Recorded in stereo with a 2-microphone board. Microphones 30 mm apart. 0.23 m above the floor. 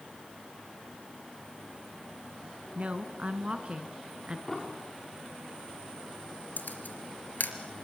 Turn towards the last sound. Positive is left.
turn(degrees=75)  # may be behind; listen again after turning